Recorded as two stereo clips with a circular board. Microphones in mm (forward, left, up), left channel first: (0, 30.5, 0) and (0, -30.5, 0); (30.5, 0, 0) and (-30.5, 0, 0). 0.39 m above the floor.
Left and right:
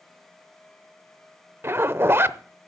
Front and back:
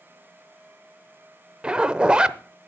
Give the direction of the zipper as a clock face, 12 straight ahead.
4 o'clock.